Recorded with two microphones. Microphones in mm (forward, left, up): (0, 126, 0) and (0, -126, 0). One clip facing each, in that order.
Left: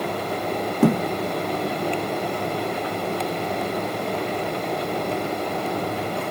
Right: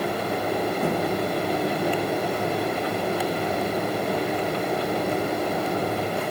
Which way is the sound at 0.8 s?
90° left.